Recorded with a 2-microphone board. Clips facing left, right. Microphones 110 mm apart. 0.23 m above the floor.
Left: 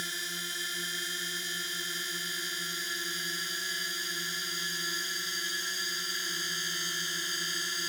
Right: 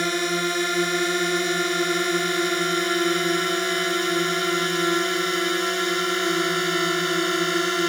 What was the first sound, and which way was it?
A drone, 65° right (ahead or behind).